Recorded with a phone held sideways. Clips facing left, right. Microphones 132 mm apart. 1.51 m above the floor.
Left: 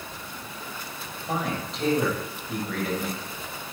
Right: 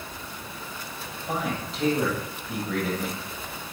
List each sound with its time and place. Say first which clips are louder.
1.3 s a man speaking: even; centre (ahead or behind), 8.5 m